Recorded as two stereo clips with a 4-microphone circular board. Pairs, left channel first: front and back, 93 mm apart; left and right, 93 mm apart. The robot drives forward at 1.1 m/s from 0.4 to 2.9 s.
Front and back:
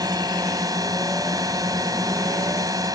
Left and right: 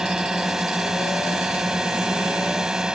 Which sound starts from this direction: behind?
A drone, at 0.0 s.